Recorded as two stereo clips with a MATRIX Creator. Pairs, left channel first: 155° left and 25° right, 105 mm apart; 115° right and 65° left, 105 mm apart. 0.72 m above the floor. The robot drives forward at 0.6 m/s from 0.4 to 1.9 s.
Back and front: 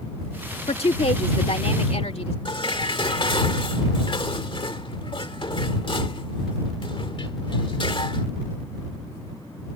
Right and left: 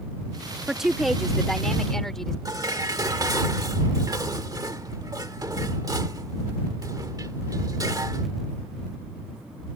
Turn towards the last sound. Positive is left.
turn(degrees=120)